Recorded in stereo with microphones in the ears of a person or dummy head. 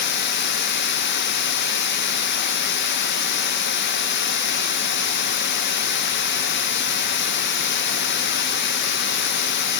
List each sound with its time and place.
0.0 s running water: 55° left (ahead or behind), 1.0 m